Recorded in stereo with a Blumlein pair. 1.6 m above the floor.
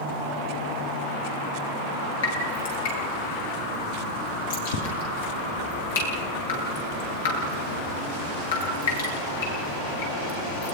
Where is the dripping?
60° left, 10 m.